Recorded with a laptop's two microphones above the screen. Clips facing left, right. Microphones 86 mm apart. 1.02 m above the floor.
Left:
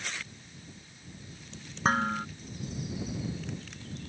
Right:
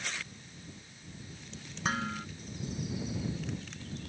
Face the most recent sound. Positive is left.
turn(degrees=40)  # may be behind; listen again after turning